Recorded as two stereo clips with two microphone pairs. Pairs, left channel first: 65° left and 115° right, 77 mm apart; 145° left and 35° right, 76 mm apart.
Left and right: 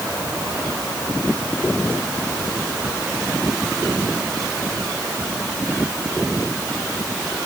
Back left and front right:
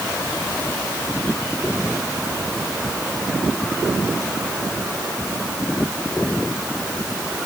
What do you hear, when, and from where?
Only background noise.